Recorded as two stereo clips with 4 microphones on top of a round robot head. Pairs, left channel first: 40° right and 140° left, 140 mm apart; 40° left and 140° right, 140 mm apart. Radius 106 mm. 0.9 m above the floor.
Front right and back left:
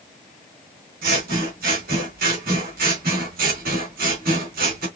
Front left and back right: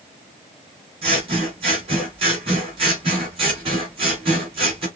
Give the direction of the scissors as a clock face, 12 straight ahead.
7 o'clock.